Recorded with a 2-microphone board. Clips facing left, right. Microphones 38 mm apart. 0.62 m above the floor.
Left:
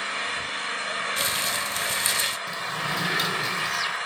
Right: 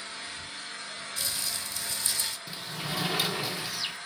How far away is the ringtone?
No ringtone in this recording.